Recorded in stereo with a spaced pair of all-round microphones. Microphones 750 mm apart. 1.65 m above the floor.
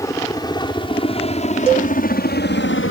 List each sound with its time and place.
0.0 s a helicopter: 5° left (ahead or behind); by 2.9 s 15° left (ahead or behind)
1.7 s a cowbell: 55° right (ahead or behind)